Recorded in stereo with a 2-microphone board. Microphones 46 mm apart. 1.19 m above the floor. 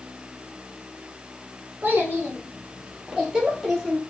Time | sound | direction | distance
1.8 | a child speaking | 40° right (ahead or behind) | 3 m